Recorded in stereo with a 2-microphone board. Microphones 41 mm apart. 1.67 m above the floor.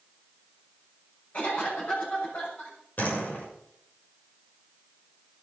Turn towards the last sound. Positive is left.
turn(degrees=50)  # may be behind; listen again after turning